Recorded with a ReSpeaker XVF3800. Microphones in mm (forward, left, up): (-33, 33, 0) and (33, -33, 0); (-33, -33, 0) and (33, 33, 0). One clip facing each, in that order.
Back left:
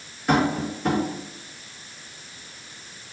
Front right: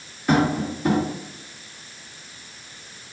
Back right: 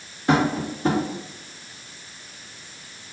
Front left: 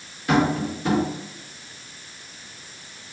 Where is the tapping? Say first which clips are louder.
Front right 1 dB, even; 130° right, 1.5 m.